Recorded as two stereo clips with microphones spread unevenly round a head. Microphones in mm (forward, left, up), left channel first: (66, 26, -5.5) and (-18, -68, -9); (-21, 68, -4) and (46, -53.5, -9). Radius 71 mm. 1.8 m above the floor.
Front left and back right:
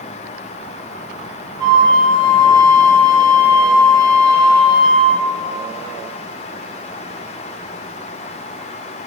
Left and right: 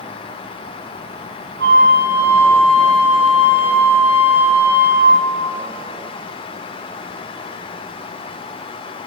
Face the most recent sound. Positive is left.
turn(degrees=-75)